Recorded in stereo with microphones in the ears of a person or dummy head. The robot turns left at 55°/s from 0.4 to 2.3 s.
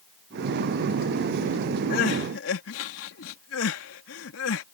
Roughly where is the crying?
Left.